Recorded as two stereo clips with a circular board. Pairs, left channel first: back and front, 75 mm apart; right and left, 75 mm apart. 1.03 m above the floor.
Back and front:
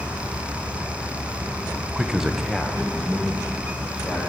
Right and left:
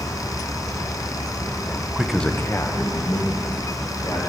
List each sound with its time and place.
1.9 s a man speaking: 50° left, 0.6 m; by 4.2 s 100° right, 2 m